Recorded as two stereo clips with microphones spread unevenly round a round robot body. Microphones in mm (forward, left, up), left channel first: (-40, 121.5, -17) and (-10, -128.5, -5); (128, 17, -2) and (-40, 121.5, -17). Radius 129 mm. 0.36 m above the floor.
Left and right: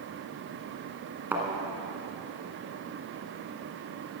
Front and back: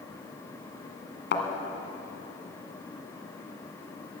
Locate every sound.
1.3 s a thud: straight ahead, 1.8 m